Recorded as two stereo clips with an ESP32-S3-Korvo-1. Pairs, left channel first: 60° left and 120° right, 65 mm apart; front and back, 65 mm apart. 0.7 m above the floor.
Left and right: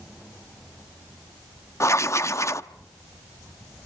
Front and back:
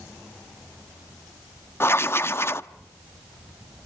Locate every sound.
1.8 s writing: 40° left, 0.8 m